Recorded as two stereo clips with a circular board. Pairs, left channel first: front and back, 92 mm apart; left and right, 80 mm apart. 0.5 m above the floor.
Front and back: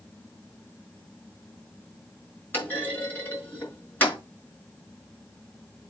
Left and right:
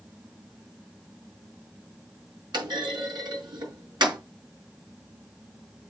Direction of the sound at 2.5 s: 70° right.